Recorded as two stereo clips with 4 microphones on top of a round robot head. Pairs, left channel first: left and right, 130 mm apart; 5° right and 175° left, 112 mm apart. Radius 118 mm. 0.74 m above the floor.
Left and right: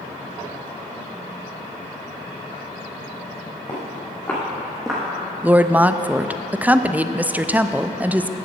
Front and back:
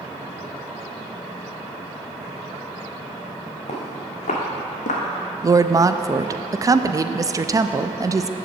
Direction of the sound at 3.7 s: 20° left.